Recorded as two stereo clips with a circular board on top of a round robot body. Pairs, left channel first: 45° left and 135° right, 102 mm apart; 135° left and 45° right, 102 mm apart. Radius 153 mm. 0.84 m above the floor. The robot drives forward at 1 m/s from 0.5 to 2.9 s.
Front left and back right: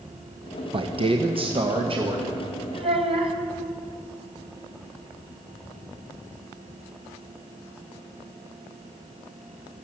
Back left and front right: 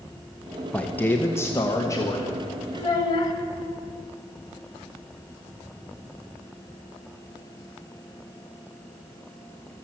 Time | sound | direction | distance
0.7 | a man speaking | 145° right | 1.3 m
2.7 | a child speaking | 170° right | 3 m